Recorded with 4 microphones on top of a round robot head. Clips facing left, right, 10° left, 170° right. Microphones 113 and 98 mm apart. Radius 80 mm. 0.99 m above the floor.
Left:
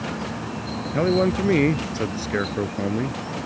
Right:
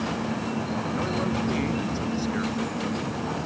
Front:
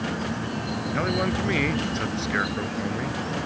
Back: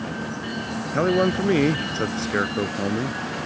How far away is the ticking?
I don't hear ticking.